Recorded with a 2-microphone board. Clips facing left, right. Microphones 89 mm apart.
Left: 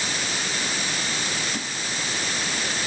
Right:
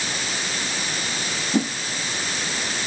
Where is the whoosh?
50° right (ahead or behind).